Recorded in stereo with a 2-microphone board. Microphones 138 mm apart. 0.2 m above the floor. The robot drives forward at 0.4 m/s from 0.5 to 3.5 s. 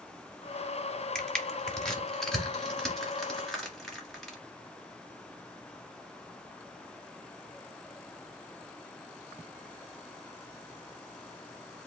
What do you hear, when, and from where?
1.1 s crushing: 5° left (ahead or behind), 1.2 m